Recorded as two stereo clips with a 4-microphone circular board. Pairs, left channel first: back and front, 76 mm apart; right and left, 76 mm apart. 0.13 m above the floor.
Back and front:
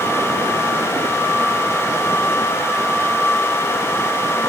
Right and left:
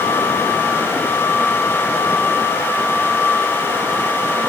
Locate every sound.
Only background noise.